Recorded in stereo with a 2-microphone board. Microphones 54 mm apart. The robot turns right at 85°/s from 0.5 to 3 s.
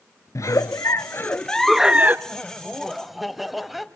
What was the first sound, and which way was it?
A giggle, 75° left.